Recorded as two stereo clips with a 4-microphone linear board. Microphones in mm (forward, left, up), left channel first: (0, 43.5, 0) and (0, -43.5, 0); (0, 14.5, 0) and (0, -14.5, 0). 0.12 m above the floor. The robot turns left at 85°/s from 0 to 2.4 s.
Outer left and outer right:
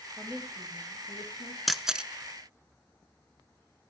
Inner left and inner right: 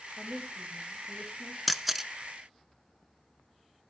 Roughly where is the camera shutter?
Centre.